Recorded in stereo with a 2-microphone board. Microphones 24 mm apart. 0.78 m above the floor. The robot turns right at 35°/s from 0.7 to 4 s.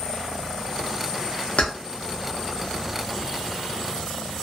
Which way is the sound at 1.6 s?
65° left (ahead or behind).